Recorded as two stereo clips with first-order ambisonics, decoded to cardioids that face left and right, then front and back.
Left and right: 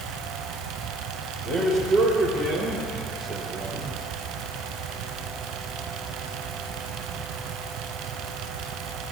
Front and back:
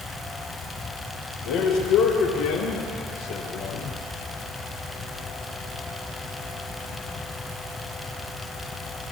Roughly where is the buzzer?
No buzzer in this recording.